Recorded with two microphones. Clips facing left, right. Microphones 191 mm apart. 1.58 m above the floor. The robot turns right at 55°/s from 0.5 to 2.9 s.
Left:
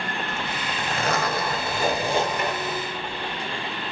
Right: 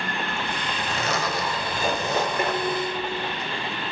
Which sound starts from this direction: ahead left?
A zipper, at 0.3 s.